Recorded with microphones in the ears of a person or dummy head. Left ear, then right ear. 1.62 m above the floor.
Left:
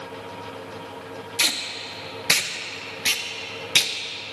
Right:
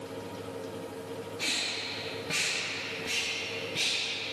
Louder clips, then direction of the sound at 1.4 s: Left 7 dB; 55° left (ahead or behind).